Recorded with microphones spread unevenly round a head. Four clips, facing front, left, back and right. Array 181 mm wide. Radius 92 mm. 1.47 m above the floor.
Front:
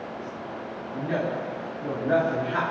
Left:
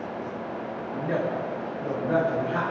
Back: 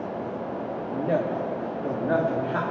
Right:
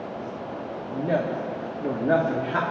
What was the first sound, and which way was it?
A woman speaking, 140° right.